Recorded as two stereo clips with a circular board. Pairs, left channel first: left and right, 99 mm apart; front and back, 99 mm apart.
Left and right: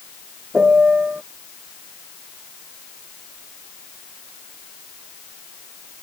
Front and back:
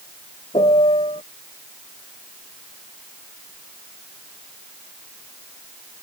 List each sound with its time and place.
0.5 s a piano: 10° right